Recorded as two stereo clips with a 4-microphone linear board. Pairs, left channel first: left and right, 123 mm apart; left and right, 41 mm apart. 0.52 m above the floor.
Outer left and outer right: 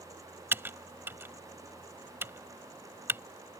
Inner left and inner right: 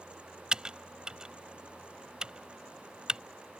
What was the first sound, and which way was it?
Typing on a keyboard, 20° right (ahead or behind).